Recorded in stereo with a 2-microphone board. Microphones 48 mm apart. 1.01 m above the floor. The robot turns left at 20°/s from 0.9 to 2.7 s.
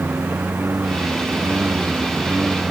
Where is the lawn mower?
55° right (ahead or behind); by 2.7 s 20° right (ahead or behind).